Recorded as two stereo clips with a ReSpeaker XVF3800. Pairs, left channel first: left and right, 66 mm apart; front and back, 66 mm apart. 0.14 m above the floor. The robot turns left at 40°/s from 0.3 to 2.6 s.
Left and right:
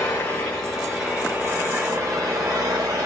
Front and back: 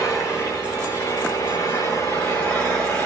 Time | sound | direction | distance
0.0 | an engine running | 20° left | 9.5 m